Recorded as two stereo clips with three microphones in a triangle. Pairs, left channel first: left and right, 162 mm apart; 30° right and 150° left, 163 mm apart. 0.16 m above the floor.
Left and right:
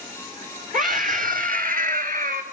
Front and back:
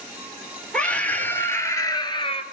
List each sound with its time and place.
0.7 s a scream: 115° right, 4 m; by 2.4 s 80° right, 2.5 m